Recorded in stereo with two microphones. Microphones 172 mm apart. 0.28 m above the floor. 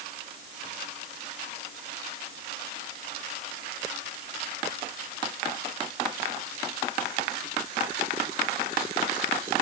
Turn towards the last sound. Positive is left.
No sound to turn to.